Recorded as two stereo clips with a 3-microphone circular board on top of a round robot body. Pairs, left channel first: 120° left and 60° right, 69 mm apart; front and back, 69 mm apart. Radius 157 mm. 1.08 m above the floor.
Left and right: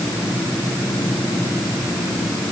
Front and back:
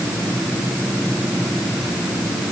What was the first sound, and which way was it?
Only background noise.